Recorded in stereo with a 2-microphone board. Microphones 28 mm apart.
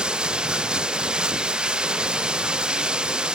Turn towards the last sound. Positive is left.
turn(degrees=-40)  # may be behind; listen again after turning